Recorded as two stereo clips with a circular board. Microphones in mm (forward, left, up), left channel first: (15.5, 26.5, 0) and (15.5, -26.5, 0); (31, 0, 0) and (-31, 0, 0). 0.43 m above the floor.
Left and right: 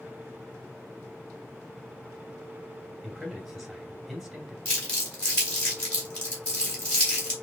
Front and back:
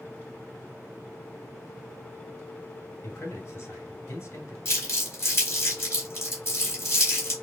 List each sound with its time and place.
3.0 s a man speaking: straight ahead, 1.5 m
4.7 s crumpling: 30° left, 2 m